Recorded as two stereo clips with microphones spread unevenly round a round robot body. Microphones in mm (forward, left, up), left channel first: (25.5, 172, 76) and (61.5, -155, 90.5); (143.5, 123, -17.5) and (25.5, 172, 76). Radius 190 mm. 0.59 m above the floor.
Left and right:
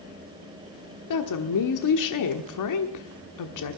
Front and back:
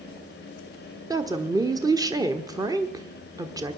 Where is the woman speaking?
75° left, 1.4 m.